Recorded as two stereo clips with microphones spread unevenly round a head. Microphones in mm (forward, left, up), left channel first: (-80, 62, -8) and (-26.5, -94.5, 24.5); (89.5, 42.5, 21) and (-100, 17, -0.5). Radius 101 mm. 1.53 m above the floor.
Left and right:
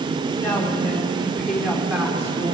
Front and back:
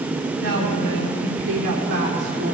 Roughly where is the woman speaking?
Behind.